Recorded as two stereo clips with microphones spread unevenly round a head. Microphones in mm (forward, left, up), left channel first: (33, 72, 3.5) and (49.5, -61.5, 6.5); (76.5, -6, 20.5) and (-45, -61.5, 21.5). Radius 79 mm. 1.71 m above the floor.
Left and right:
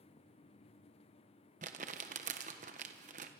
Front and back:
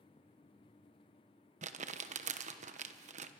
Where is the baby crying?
No baby crying in this recording.